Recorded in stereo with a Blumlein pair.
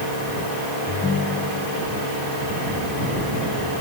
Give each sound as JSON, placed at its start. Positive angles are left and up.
{"t": 0.9, "sound": "a ringtone", "azimuth_deg": 20}